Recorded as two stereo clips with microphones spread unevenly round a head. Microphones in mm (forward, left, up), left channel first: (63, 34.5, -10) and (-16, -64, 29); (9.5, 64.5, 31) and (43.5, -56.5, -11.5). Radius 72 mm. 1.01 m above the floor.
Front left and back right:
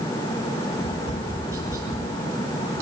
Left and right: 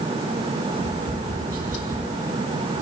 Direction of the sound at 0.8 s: 65° right.